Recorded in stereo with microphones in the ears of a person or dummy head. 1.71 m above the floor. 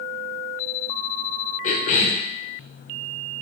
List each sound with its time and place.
1.6 s a cough: 45° left (ahead or behind), 0.5 m